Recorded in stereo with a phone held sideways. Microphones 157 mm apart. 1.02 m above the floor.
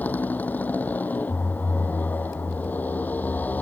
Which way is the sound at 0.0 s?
10° left (ahead or behind).